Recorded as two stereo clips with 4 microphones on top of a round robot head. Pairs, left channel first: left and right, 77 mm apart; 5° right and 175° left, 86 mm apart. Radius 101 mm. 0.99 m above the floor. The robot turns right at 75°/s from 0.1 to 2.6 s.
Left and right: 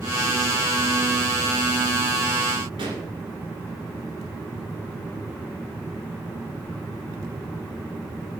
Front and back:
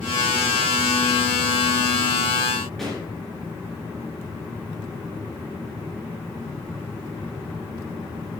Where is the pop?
90° right, 2 m.